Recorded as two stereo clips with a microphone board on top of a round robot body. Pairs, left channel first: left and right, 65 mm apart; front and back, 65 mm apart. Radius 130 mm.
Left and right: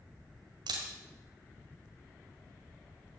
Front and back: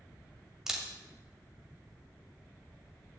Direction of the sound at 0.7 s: 100° right.